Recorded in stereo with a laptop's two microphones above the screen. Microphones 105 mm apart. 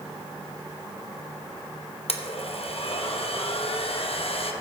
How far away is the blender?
About 0.9 m.